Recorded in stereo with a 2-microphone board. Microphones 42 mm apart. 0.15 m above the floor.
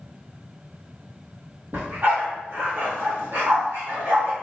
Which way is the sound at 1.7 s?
55° right (ahead or behind).